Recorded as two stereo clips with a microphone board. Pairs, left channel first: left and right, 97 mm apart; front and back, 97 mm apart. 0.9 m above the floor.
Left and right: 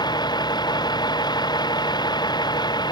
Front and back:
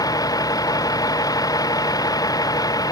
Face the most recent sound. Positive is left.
turn(degrees=50)